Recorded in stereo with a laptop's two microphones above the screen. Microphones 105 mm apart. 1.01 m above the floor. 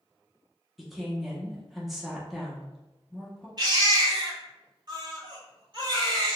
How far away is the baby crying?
About 1.1 m.